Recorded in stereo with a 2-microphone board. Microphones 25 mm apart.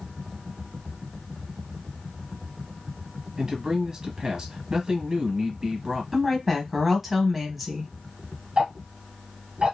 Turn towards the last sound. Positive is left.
turn(degrees=-35)  # may be behind; listen again after turning